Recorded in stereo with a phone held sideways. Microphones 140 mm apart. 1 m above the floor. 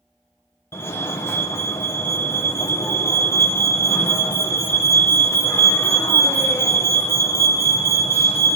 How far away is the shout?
I don't hear a shout.